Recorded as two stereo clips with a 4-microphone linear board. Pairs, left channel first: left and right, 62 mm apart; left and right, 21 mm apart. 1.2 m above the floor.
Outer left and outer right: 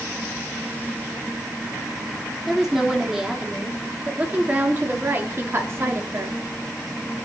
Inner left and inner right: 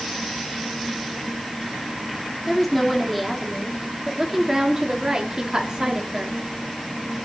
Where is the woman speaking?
5° right (ahead or behind), 3.5 m; by 6.4 s 50° right (ahead or behind), 3.5 m.